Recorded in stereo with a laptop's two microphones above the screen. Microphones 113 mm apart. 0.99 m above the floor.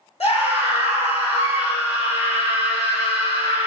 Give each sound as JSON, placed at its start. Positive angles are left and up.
{"t": 0.2, "sound": "a scream", "side_deg": 85, "distance_m": 3.0}